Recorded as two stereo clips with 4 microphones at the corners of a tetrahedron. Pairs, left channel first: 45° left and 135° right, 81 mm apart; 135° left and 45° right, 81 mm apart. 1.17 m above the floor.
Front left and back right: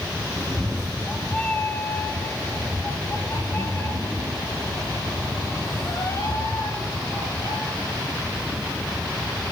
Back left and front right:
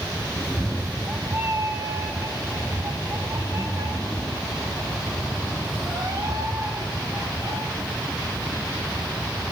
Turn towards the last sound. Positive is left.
turn(degrees=-5)